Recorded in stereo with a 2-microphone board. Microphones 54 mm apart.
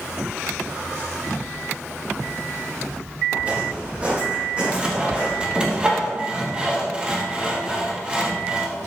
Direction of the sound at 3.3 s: 25° right (ahead or behind).